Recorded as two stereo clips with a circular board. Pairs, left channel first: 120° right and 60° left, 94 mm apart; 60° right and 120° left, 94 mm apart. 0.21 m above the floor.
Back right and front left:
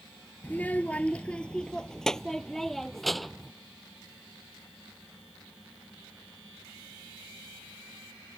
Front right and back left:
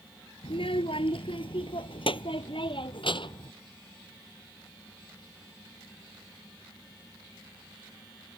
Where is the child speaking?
50° right; by 3.5 s 30° right.